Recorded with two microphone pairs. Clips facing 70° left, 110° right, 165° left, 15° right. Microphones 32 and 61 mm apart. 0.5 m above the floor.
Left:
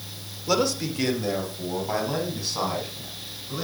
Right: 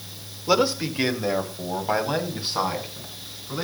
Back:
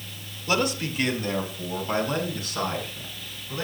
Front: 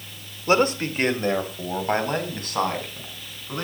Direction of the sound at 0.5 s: 50° right.